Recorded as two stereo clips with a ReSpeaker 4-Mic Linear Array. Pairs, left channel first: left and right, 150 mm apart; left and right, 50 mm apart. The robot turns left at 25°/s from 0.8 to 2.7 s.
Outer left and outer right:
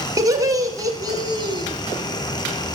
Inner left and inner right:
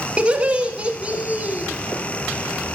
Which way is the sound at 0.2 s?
25° right (ahead or behind).